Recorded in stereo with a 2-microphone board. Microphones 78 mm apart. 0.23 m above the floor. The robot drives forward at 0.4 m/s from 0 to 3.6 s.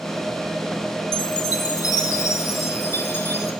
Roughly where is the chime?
Left.